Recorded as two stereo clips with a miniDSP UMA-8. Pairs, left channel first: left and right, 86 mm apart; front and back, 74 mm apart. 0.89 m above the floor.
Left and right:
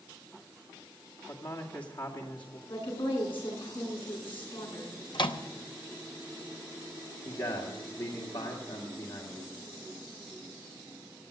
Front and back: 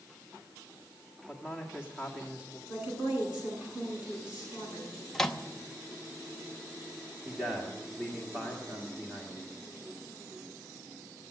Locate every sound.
1.3 s a man speaking: 105° left, 2 m
2.7 s a woman speaking: 100° left, 10 m
5.1 s a microwave: 85° left, 0.9 m
7.2 s a man speaking: 105° left, 1.9 m